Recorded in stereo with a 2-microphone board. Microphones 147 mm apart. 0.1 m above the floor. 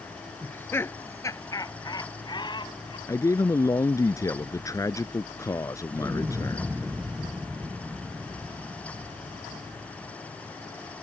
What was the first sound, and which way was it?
Laughter, 10° left (ahead or behind).